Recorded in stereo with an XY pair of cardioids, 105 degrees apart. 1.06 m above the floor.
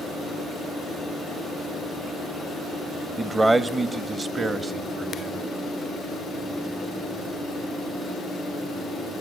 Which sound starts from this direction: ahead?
A man speaking, at 3.2 s.